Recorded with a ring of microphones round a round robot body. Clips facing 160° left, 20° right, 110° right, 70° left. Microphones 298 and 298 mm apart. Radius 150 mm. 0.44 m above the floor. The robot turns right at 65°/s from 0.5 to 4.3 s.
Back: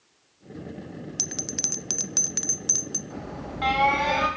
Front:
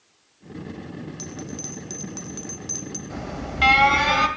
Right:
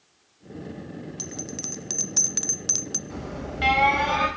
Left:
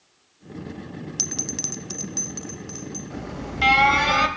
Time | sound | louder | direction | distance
1.2 | a bell | front 2 dB, left 2 dB | 120° left | 0.8 m
3.1 | an alarm | front 3 dB, even | 30° right | 3.5 m